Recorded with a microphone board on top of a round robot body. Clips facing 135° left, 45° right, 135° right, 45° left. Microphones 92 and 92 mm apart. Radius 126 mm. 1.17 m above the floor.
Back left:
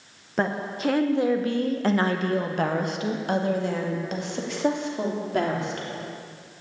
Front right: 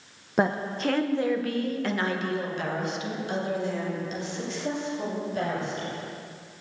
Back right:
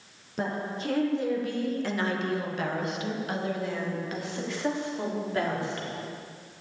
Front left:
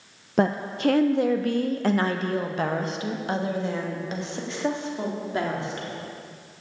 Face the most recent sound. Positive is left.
turn(degrees=115)